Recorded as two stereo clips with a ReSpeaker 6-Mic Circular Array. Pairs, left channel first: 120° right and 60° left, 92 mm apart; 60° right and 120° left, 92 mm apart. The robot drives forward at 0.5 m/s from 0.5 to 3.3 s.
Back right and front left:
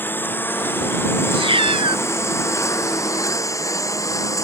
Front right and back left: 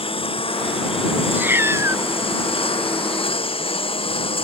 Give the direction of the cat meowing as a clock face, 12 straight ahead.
10 o'clock.